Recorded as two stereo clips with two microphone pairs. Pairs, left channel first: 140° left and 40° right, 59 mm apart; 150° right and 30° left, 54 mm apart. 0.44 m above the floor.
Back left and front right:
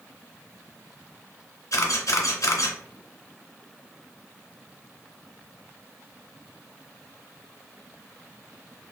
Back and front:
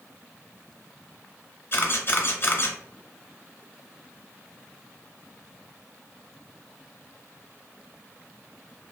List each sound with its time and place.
1.7 s a camera shutter: 160° left, 0.6 m